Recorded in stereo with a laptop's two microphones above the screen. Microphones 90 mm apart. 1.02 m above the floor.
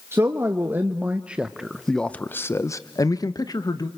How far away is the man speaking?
About 1.8 m.